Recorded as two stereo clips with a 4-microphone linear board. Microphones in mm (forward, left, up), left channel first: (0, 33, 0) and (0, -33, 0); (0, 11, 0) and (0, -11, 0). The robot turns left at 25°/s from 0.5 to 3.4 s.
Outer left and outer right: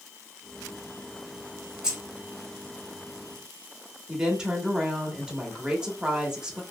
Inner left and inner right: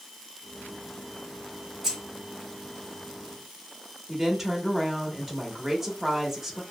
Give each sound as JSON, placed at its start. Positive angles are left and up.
{"t": 1.8, "sound": "keys jangling", "side_deg": -10, "distance_m": 1.1}
{"t": 4.1, "sound": "a woman speaking", "side_deg": -10, "distance_m": 0.8}